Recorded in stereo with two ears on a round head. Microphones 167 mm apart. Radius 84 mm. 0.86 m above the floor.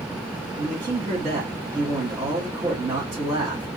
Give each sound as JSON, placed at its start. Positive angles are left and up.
{"t": 0.6, "sound": "a man speaking", "side_deg": -25, "distance_m": 1.0}